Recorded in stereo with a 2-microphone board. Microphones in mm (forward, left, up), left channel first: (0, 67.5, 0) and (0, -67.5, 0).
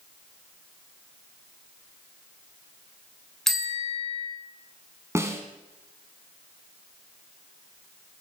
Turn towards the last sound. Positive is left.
turn(degrees=-20)  # may be behind; listen again after turning